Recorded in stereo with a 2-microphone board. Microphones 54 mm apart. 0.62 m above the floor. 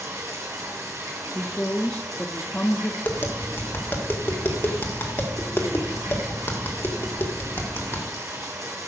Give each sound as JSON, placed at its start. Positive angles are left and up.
{"t": 0.0, "sound": "running water", "side_deg": -75, "distance_m": 4.0}
{"t": 1.4, "sound": "a woman speaking", "side_deg": 30, "distance_m": 0.7}
{"t": 3.0, "sound": "tapping", "side_deg": 45, "distance_m": 1.7}